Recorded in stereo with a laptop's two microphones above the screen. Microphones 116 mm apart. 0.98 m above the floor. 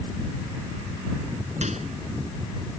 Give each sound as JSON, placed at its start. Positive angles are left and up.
{"t": 1.6, "sound": "a microwave", "side_deg": -85}